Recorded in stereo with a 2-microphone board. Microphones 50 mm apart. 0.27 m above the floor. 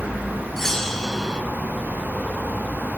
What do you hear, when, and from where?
0.6 s a bell: 10° left (ahead or behind), 0.8 m